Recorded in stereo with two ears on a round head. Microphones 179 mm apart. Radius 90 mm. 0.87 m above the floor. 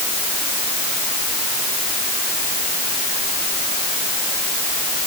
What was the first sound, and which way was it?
Only background noise.